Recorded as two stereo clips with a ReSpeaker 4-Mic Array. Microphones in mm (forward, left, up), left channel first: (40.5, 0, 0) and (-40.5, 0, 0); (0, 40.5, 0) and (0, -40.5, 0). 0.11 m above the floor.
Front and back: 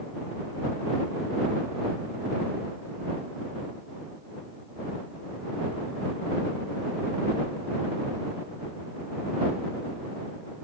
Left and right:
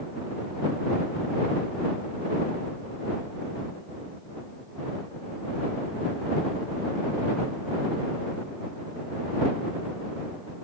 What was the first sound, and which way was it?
Only background noise.